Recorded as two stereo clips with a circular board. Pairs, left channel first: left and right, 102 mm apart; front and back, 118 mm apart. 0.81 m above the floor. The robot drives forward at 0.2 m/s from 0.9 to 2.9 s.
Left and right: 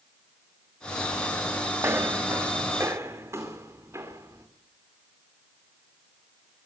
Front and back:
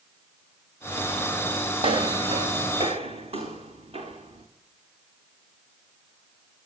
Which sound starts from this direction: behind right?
Footsteps, at 1.8 s.